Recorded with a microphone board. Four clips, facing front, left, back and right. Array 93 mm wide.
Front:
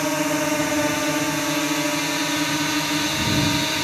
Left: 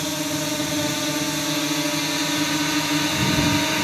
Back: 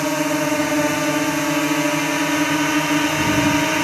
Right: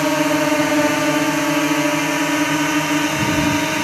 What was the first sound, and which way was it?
A drone, 95° right.